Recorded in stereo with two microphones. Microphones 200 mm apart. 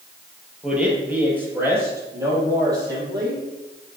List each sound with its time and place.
0.6 s a man speaking: 5° right (ahead or behind), 2.5 m; by 3.4 s 20° right (ahead or behind), 4 m